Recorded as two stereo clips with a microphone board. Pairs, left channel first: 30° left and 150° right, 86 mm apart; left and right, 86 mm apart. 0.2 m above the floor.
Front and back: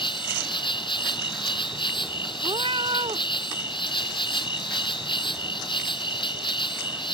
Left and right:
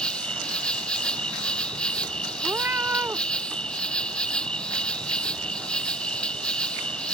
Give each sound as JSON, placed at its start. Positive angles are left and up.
{"t": 0.0, "sound": "an insect", "azimuth_deg": 10}
{"t": 2.4, "sound": "a cat meowing", "azimuth_deg": -155}